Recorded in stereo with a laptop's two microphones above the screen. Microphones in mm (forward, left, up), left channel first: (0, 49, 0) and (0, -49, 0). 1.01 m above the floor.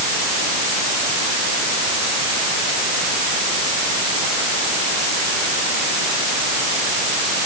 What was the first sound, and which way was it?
Only background noise.